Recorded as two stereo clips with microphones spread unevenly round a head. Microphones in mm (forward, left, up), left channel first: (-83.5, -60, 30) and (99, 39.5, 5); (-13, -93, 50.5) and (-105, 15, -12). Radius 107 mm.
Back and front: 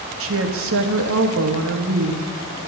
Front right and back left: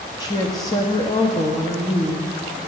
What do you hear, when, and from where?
0.2 s a woman speaking: 25° left, 1.6 m